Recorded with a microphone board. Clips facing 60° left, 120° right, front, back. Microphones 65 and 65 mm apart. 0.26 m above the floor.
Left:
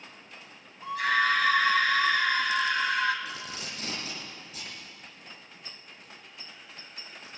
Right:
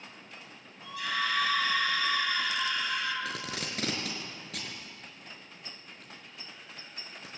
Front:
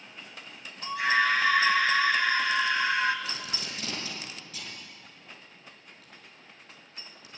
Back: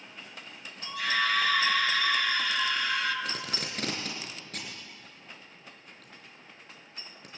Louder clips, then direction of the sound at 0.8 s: Left 7 dB, front 4 dB; 40° left.